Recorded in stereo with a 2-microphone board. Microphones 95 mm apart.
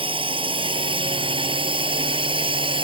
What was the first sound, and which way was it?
A drone, 75° right (ahead or behind).